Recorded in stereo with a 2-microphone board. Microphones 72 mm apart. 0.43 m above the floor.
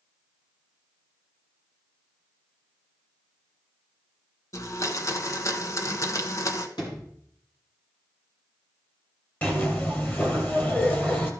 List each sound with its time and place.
4.5 s a blender: 45° left (ahead or behind), 1.0 m
6.8 s a sliding door: 75° left (ahead or behind), 4 m
9.4 s a zipper: 25° left (ahead or behind), 1.8 m